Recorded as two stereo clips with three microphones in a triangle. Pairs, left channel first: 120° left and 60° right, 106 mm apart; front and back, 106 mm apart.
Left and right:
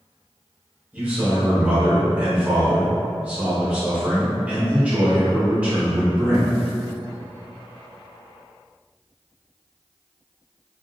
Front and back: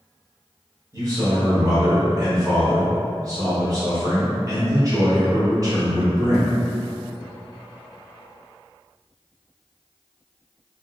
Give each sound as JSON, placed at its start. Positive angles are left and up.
{"t": 0.9, "sound": "a man speaking", "azimuth_deg": -130, "distance_m": 1.0}